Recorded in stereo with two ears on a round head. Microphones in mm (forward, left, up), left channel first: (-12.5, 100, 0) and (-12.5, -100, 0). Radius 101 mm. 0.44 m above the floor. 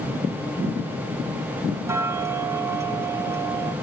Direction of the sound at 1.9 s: 10° right (ahead or behind).